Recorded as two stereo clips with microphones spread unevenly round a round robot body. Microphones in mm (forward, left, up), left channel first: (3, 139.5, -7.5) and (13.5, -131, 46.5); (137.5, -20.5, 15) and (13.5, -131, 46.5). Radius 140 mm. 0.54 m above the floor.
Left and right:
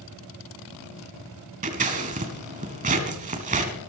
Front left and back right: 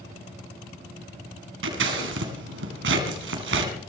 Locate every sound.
1.6 s scissors: 155° right, 1.9 m